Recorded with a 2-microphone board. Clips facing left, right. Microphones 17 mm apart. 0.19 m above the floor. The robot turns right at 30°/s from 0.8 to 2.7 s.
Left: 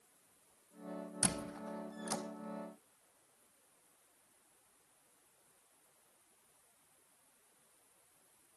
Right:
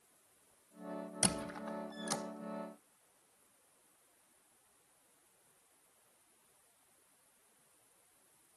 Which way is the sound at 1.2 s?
60° right (ahead or behind).